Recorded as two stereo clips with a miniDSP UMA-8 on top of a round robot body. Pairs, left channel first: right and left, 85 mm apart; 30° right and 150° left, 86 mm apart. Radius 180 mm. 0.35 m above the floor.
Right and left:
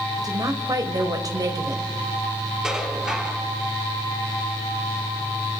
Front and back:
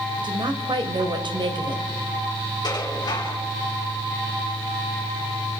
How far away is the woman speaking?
About 2.5 m.